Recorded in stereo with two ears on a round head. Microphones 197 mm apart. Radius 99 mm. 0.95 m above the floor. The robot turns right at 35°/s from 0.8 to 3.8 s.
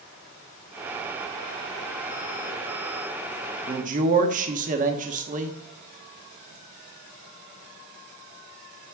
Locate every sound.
3.7 s a man speaking: 30° right (ahead or behind), 1.3 m; by 5.6 s 35° right (ahead or behind), 1.3 m